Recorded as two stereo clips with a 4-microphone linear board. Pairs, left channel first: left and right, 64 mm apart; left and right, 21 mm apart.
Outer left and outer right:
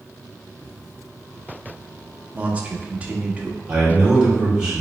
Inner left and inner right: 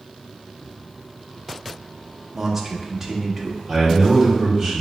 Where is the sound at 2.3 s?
20° right (ahead or behind), 0.7 m.